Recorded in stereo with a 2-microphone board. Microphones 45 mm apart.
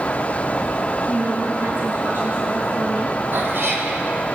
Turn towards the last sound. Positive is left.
turn(degrees=-60)  # may be behind; listen again after turning